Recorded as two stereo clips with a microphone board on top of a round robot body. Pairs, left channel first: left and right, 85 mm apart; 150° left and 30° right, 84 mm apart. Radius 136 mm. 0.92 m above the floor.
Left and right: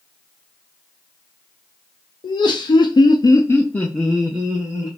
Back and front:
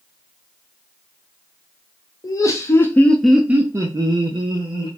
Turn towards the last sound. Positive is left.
turn(degrees=-20)